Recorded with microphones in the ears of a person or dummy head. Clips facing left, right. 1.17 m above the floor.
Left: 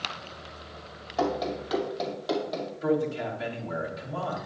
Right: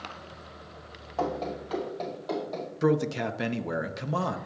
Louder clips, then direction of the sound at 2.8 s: Right 2 dB; 75° right (ahead or behind).